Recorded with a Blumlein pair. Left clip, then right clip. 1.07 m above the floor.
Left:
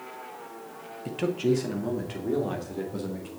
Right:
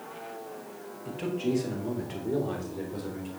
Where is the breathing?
I don't hear breathing.